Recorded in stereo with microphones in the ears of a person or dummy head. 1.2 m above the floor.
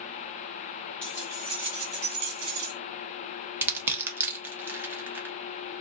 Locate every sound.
1.0 s keys jangling: 5° left (ahead or behind), 0.7 m; by 2.7 s 60° right (ahead or behind), 1.2 m
3.6 s crushing: 10° right (ahead or behind), 0.5 m